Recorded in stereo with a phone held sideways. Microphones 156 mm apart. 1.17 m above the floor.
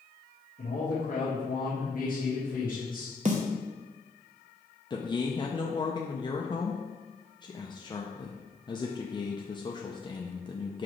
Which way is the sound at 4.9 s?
25° left (ahead or behind).